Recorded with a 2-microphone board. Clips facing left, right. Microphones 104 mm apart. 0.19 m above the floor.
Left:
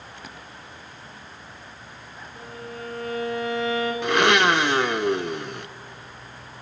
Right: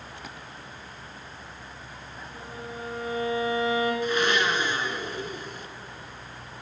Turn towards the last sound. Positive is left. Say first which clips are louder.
# left 6 dB
turn(degrees=70)  # may be behind; listen again after turning